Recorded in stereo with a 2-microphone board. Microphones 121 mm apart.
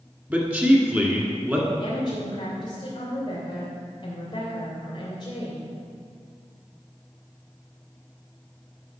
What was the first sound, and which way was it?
A man speaking, 15° right (ahead or behind).